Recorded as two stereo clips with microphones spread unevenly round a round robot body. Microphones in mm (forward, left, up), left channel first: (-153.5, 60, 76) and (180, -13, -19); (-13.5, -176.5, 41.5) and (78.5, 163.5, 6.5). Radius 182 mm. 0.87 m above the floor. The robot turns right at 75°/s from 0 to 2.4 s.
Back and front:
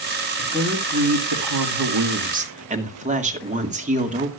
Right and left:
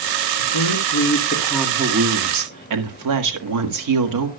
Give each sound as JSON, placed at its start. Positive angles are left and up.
{"t": 0.4, "sound": "a woman speaking", "azimuth_deg": -105, "distance_m": 1.9}